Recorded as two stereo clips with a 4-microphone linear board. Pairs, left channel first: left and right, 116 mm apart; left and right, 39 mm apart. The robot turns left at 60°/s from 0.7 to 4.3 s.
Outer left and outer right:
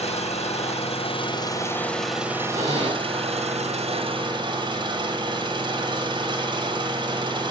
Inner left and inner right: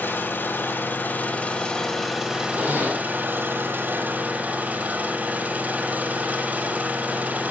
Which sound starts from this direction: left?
An engine running, at 0.0 s.